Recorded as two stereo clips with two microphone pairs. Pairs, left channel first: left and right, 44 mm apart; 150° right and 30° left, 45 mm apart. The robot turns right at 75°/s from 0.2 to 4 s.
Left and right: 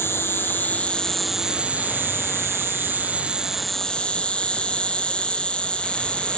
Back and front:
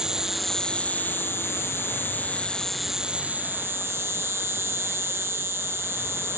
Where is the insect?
105° left; by 6.4 s 30° left.